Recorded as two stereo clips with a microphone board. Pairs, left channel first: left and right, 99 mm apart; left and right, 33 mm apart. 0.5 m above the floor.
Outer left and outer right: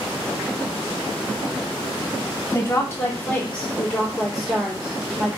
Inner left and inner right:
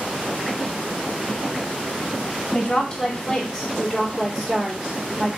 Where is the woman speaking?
25° left (ahead or behind), 1.3 m; by 5.4 s 10° right (ahead or behind), 1.9 m.